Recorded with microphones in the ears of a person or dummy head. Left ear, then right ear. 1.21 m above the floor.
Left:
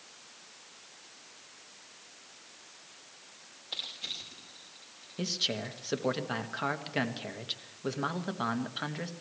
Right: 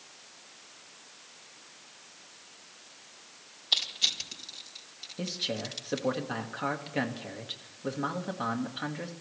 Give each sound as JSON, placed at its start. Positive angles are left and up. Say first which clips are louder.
{"t": 3.7, "sound": "crushing", "louder": "right 10 dB", "side_deg": -55, "distance_m": 5.0}
{"t": 5.2, "sound": "a man speaking", "louder": "left 2 dB", "side_deg": 10, "distance_m": 1.6}